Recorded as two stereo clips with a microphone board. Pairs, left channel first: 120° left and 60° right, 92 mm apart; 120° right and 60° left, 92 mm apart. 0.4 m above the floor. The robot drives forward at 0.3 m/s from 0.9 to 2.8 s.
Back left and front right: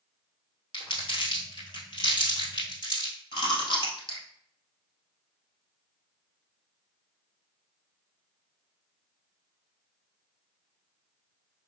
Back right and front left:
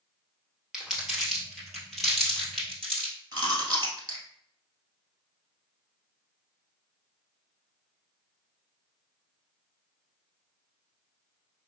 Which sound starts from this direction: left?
Chewing, at 3.3 s.